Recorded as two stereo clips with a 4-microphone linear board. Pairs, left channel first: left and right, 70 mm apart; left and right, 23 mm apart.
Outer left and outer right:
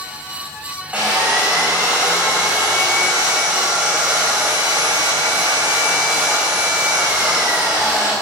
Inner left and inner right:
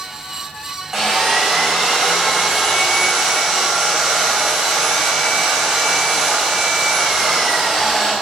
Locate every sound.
0.9 s sawing: 20° right (ahead or behind), 5.5 m